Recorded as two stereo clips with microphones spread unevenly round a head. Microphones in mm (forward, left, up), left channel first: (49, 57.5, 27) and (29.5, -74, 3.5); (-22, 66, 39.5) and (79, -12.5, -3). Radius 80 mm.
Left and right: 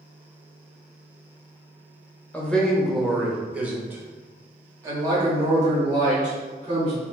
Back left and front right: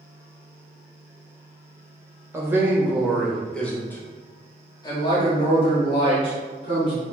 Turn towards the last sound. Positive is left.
turn(degrees=-155)